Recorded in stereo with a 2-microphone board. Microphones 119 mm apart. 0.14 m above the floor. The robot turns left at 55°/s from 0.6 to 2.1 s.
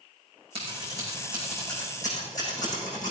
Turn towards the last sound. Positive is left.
turn(degrees=30)  # may be behind; listen again after turning